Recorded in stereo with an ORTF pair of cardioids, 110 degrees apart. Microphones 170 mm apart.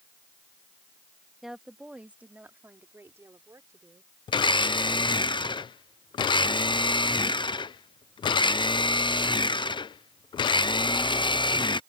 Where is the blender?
30° left.